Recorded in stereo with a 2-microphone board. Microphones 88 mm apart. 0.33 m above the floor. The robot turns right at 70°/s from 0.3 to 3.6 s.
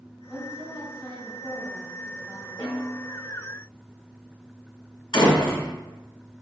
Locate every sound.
0.3 s a woman speaking: 170° right, 1.7 m; by 2.5 s 15° right, 1.7 m
2.6 s a snare drum: 80° left, 2.0 m; by 3.0 s 110° left, 2.0 m
5.1 s a door slam: 70° left (ahead or behind), 1.6 m